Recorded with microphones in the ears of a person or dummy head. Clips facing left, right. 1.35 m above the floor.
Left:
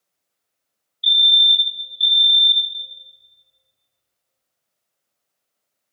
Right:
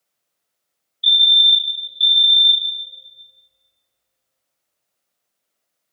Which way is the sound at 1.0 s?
5° right (ahead or behind).